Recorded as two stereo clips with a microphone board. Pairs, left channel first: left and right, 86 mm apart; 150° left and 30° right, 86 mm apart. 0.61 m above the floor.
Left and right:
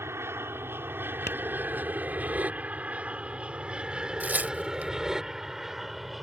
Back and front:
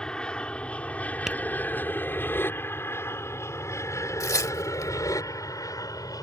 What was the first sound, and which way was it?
An aircraft, 135° right.